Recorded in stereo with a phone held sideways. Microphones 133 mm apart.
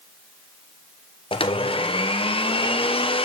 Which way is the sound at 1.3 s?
45° left (ahead or behind).